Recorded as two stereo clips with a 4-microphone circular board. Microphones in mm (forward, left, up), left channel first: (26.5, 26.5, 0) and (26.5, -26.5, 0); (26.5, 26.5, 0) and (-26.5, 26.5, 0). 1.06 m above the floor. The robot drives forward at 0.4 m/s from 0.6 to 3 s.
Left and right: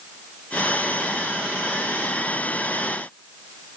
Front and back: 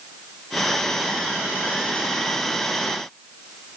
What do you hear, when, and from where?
Only background noise.